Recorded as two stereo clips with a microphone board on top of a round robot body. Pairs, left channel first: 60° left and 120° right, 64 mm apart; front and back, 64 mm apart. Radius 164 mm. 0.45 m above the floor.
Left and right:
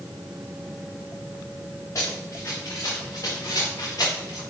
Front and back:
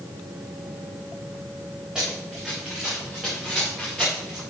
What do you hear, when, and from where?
1.9 s running footsteps: 100° left, 4.5 m; by 4.4 s 80° left, 4.5 m